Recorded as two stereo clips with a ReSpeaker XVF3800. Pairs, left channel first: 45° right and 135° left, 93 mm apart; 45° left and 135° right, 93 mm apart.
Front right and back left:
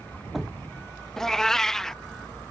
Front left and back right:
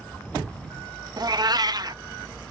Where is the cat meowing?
130° right.